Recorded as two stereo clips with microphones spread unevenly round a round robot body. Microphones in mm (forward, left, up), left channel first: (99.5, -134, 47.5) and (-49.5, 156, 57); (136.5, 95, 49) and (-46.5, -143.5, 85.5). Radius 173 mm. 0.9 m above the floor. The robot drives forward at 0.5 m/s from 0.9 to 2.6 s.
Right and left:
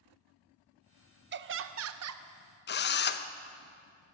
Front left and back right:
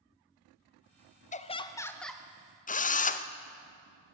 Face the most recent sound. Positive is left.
turn(degrees=-5)